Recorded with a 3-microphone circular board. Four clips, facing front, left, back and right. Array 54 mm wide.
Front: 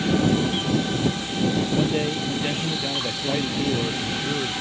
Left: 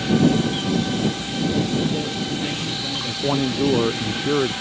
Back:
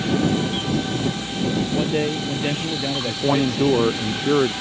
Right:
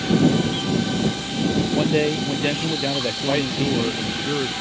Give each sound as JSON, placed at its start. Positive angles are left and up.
{"t": 1.7, "sound": "a man speaking", "azimuth_deg": -100}
{"t": 3.1, "sound": "a man speaking", "azimuth_deg": 160}